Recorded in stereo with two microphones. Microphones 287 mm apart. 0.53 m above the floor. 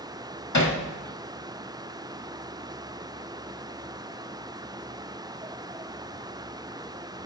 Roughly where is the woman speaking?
No woman speaking in this recording.